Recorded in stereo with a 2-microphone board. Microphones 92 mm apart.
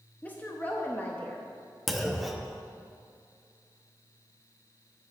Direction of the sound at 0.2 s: 20° left (ahead or behind).